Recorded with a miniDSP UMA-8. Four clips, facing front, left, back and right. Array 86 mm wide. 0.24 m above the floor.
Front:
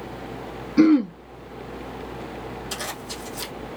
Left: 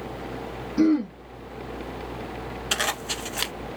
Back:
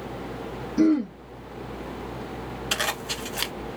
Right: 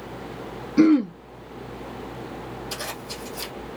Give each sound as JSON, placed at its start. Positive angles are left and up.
{"t": 0.8, "sound": "throat clearing", "azimuth_deg": -40, "distance_m": 0.9}
{"t": 2.7, "sound": "a zipper", "azimuth_deg": 125, "distance_m": 0.8}